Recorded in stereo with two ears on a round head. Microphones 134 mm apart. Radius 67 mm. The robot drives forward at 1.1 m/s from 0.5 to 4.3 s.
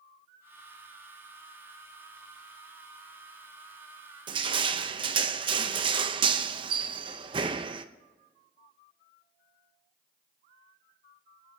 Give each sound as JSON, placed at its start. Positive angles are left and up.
{"t": 4.3, "sound": "crushing", "side_deg": -30, "distance_m": 0.7}